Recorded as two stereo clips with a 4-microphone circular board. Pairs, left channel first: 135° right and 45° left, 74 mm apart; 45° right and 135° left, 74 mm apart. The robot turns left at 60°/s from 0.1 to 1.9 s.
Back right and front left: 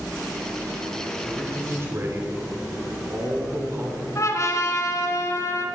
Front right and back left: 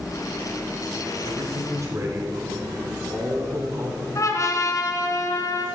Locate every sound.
1.2 s a man speaking: 130° left, 2.5 m; by 4.0 s 95° left, 2.5 m
4.2 s a trumpet: 90° right, 2 m